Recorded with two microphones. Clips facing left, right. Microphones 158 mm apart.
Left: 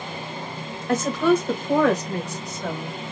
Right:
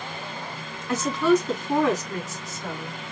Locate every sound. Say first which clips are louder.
0.9 s a woman speaking: left 1 dB; 45° left (ahead or behind), 1.5 m; by 3.0 s 55° left (ahead or behind), 1.8 m